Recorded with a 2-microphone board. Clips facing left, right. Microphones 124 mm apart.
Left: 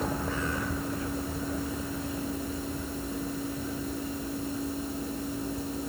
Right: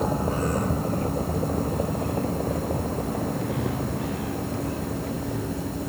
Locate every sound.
0.0 s a vehicle: 30° right (ahead or behind); by 5.9 s 75° right (ahead or behind)